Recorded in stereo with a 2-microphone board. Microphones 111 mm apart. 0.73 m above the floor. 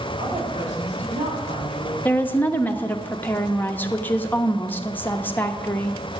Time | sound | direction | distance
0.2 | a woman speaking | 80° right | 6.5 m
2.0 | a woman speaking | 15° left (ahead or behind) | 0.9 m